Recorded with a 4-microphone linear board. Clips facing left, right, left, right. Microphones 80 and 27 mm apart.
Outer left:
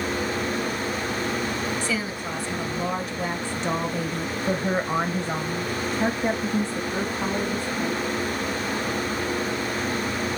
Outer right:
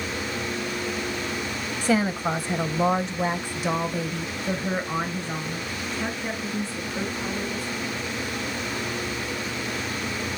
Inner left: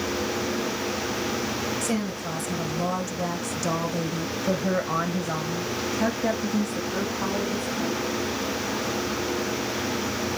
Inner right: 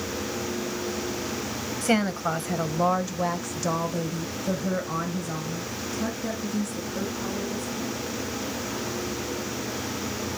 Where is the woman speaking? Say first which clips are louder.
Outer right 5 dB, inner right 4 dB; 50° right (ahead or behind), 1.4 m; by 8.1 s 55° left (ahead or behind), 2.5 m.